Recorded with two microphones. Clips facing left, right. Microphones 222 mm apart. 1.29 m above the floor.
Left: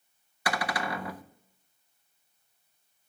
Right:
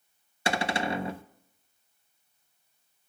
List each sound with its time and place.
0.5 s a cupboard door: 25° right (ahead or behind), 0.5 m